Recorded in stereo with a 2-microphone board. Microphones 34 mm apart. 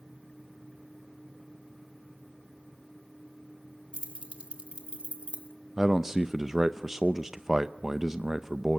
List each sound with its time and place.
3.9 s keys jangling: 40° right (ahead or behind), 2 m
5.8 s a man speaking: 15° right (ahead or behind), 0.6 m